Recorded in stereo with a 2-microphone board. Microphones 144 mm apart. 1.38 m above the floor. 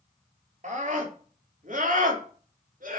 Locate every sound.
0.6 s a scream: 65° right (ahead or behind), 4 m; by 3.0 s 75° right (ahead or behind), 3 m